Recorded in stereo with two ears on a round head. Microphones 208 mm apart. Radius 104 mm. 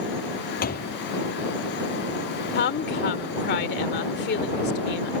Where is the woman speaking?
50° left (ahead or behind).